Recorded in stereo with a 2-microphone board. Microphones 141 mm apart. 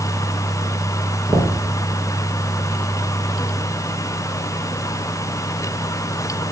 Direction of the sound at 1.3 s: 10° right (ahead or behind).